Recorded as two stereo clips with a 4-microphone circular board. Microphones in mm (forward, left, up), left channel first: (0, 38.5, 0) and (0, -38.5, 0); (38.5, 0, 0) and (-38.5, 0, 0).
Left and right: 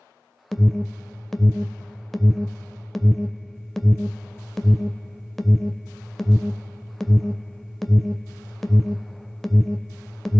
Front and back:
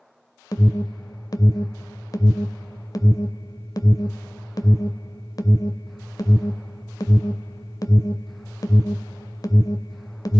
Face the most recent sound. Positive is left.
turn(degrees=5)